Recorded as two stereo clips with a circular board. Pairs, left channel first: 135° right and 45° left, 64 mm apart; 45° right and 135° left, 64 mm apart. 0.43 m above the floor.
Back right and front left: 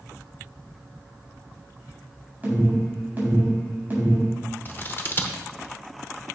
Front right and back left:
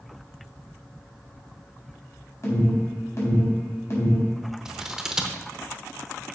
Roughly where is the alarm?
Ahead.